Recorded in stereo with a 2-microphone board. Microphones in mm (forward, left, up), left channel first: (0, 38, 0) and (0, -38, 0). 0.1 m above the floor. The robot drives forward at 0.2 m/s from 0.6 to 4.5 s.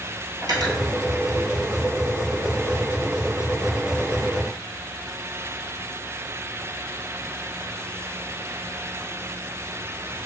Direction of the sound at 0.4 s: 55° right (ahead or behind).